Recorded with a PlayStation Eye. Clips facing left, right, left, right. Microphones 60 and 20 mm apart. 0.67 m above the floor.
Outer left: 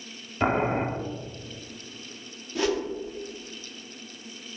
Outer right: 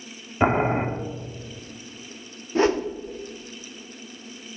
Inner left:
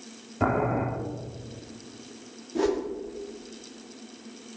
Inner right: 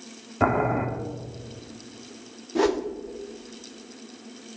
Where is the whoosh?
35° right (ahead or behind), 0.8 m.